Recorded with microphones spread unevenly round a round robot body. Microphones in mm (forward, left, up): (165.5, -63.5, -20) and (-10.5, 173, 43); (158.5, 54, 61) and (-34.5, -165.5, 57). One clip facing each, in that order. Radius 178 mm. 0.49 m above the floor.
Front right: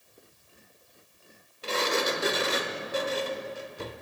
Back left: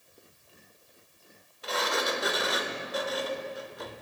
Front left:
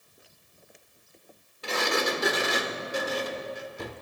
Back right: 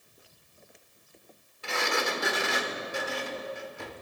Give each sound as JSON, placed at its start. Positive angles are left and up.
{"t": 1.6, "sound": "a sliding door", "azimuth_deg": 0, "distance_m": 0.9}